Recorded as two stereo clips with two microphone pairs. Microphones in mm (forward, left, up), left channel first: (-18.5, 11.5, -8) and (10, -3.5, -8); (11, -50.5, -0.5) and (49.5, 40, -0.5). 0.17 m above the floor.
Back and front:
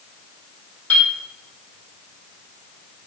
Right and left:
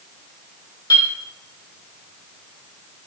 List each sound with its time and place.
0.9 s a clink: 165° right, 4 m